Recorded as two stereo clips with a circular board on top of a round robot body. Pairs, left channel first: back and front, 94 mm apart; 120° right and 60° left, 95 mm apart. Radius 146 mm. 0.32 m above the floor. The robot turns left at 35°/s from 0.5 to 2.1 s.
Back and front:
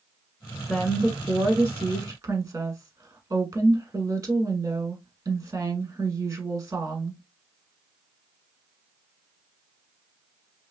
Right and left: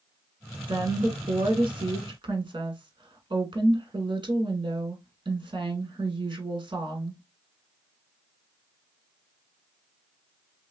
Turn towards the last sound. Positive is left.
turn(degrees=35)